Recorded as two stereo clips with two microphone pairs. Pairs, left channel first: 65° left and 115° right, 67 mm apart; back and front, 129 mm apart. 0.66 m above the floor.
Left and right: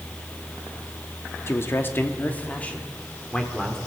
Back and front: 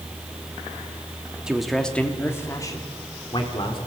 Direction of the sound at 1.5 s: 80° left.